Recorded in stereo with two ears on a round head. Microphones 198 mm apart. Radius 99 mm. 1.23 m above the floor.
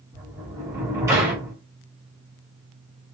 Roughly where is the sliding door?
Centre.